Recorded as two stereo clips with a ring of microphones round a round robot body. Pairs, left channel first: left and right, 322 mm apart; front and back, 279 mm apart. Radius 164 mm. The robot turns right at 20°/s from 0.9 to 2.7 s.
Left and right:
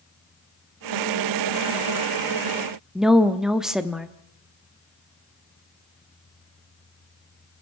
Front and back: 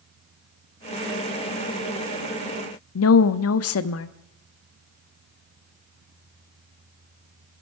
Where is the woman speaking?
Straight ahead, 0.9 m.